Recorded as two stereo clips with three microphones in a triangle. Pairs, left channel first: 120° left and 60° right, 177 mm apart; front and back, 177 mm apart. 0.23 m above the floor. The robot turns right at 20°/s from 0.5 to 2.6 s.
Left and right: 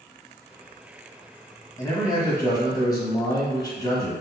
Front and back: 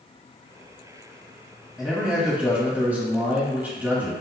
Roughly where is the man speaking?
Left.